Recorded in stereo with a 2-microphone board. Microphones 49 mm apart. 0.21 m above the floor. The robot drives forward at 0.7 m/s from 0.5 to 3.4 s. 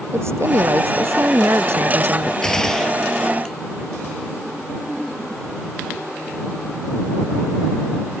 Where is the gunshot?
10° left (ahead or behind).